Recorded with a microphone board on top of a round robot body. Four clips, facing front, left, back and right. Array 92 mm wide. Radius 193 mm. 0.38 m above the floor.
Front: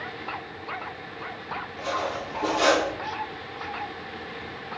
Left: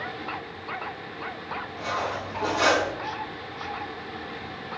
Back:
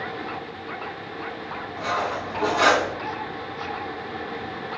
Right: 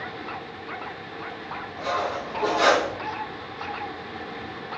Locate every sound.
1.8 s cutlery clinking: 170° left, 4 m